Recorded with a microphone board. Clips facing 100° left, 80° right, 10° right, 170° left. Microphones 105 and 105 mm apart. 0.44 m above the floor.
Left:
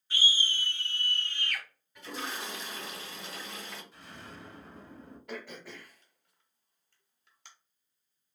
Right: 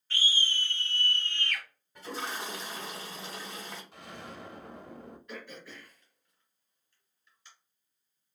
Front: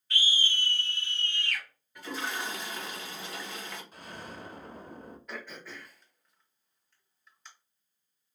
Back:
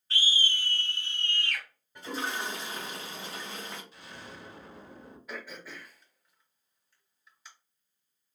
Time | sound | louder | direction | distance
0.1 | a scream | even, even | 160° left | 1.1 m
1.9 | a toilet flushing | right 2 dB, back 1 dB | 130° right | 1.6 m
3.9 | an explosion | right 4 dB, front 3 dB | 60° right | 0.6 m
5.3 | throat clearing | left 5 dB, back 2 dB | 85° left | 0.9 m